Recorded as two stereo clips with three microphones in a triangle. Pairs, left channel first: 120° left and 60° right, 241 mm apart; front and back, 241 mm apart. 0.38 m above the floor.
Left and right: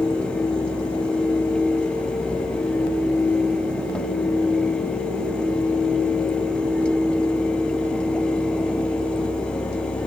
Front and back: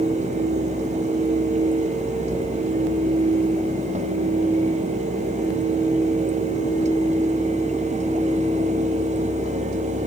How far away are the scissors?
No scissors in this recording.